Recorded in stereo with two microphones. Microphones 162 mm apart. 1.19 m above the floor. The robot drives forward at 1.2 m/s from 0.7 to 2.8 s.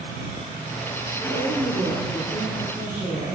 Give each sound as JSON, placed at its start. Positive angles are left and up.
{"t": 1.2, "sound": "a woman speaking", "side_deg": -85, "distance_m": 2.0}